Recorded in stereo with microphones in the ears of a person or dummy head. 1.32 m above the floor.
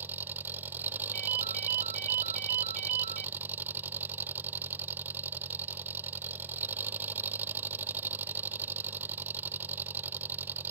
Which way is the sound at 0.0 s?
5° right (ahead or behind).